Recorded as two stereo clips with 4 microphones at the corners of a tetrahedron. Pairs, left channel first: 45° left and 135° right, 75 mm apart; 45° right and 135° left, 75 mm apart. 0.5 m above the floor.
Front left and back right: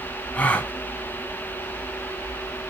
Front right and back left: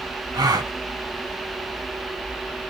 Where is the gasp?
115° left, 0.7 m.